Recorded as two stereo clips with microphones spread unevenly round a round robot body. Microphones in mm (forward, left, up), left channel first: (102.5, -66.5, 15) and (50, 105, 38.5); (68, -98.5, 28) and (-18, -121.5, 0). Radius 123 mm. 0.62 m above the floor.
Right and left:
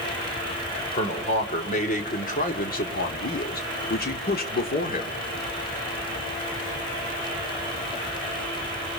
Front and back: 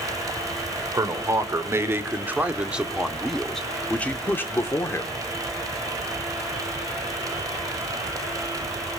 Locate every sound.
0.9 s a man speaking: 125° right, 2.5 m; by 5.2 s 50° right, 2 m